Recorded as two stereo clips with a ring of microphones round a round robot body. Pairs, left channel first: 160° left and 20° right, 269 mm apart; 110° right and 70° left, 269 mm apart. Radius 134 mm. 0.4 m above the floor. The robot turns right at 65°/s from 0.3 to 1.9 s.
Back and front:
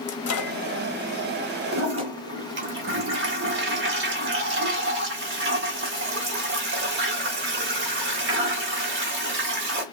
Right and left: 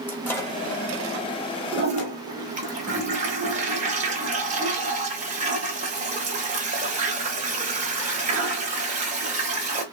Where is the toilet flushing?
Straight ahead, 1.0 m; by 9.8 s 10° left, 1.0 m.